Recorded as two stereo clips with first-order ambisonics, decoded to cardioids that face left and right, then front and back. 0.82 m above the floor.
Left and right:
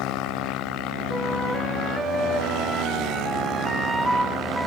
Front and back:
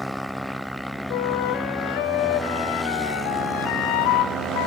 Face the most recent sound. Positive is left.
turn(degrees=0)